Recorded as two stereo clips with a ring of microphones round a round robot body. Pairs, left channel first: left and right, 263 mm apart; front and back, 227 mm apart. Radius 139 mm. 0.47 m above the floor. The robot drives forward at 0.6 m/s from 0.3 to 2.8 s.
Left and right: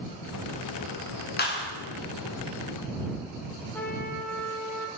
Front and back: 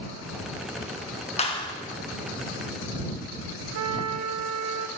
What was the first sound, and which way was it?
A clap, 55° left.